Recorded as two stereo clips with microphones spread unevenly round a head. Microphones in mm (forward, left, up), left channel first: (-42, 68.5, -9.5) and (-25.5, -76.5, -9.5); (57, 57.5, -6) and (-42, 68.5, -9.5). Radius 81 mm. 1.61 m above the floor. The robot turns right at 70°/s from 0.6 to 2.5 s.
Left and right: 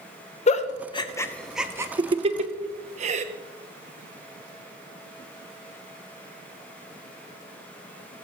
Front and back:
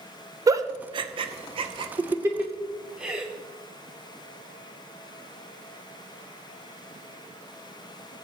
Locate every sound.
0.5 s a giggle: 125° left, 0.8 m; by 3.2 s 105° right, 0.8 m